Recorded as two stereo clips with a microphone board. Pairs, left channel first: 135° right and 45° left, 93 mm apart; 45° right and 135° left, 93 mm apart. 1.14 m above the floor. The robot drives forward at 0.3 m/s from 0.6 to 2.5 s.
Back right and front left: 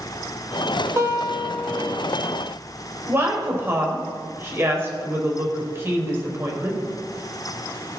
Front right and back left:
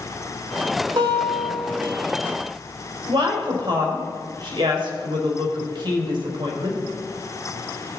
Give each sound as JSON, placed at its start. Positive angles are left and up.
{"t": 1.0, "sound": "a guitar", "azimuth_deg": 100, "distance_m": 1.9}
{"t": 3.1, "sound": "a woman speaking", "azimuth_deg": 105, "distance_m": 4.5}